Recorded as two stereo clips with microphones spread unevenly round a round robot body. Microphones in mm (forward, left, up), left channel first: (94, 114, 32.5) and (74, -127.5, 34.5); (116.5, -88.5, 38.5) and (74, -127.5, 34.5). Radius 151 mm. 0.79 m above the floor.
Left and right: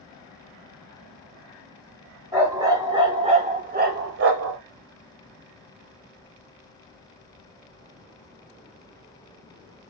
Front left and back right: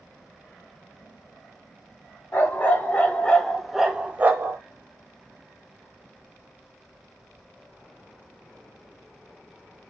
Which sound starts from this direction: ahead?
A dog barking, at 2.3 s.